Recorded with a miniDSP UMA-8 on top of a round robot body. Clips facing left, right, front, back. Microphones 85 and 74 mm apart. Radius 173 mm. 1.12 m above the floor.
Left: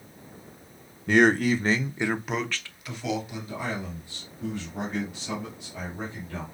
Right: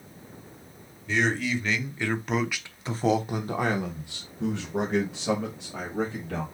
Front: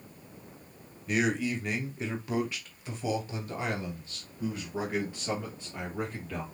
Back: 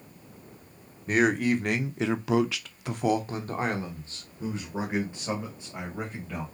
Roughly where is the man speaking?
Behind left.